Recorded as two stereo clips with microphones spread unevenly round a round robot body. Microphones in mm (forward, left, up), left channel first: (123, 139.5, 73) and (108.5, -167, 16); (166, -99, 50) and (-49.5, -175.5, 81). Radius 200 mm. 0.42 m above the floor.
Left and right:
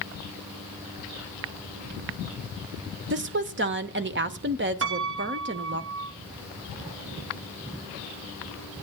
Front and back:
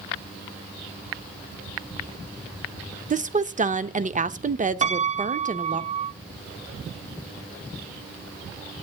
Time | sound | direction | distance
3.1 | a woman speaking | 105° right | 1.1 m
4.8 | a piano | 95° right | 0.8 m